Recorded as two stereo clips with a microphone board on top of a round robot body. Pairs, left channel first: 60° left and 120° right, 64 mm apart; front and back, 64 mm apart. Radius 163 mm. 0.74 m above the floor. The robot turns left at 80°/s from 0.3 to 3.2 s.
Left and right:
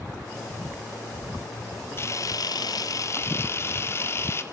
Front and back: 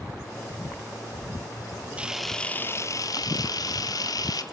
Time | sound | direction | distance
2.0 | a camera shutter | 110° left | 3 m